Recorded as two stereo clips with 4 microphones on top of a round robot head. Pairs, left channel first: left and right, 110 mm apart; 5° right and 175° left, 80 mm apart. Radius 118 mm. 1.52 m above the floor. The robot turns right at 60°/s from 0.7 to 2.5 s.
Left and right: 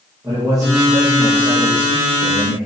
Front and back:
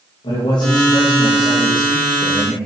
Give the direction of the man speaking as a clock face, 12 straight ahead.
1 o'clock.